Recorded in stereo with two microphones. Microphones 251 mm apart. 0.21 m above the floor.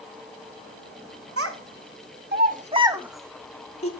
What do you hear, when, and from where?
1.4 s a child speaking: 60° right (ahead or behind), 1.2 m; by 3.9 s 25° left (ahead or behind), 1.0 m